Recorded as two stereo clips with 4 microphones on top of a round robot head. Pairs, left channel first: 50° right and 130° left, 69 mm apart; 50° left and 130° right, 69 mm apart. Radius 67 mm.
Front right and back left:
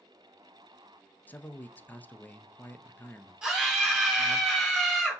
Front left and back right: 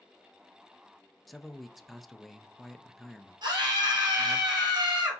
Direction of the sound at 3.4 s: 150° right.